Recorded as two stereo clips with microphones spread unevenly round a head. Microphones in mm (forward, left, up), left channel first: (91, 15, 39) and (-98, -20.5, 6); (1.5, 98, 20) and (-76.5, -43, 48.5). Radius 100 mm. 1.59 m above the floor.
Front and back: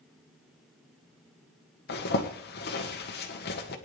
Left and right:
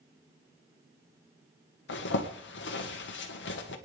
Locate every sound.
1.9 s a zipper: 50° left, 1.5 m